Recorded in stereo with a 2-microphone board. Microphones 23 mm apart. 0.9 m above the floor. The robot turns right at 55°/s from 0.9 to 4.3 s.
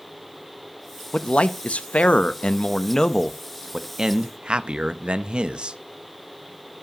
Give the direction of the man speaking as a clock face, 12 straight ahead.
10 o'clock.